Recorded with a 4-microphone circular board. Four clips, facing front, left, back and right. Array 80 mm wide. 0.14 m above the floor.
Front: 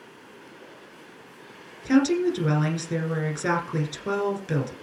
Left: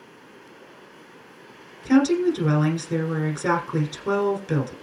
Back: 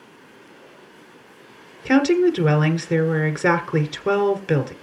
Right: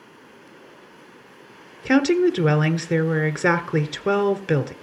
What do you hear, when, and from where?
1.9 s a woman speaking: 130° right, 1.9 m